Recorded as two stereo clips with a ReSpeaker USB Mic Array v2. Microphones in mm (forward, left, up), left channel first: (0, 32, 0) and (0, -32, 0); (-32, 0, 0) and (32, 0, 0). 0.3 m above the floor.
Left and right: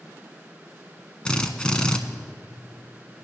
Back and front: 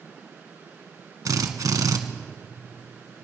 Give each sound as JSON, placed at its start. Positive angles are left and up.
{"t": 1.2, "sound": "a drill", "azimuth_deg": 15, "distance_m": 1.1}